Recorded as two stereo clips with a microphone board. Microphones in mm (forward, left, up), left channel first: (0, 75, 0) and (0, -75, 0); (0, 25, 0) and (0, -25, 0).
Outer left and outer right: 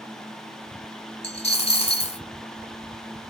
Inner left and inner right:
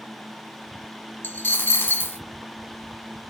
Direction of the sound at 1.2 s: 40° left (ahead or behind).